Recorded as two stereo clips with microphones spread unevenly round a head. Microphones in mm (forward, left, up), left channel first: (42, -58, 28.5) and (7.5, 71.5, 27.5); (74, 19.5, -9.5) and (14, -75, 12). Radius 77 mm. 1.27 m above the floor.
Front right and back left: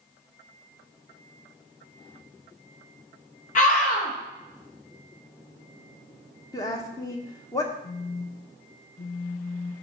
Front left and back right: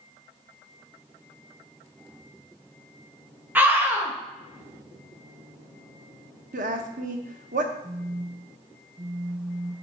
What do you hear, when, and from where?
3.5 s a scream: 50° right, 1.9 m
6.5 s a woman speaking: 145° right, 0.9 m
7.8 s a phone buzzing: 50° right, 0.7 m